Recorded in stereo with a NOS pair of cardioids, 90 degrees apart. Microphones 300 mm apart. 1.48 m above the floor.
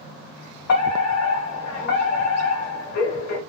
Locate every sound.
0.7 s a fire alarm: 60° left, 2.0 m